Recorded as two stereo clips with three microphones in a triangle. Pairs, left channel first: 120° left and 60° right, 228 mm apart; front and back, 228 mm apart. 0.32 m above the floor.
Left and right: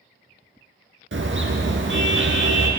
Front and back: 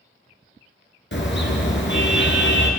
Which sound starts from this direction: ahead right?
A car horn, at 1.1 s.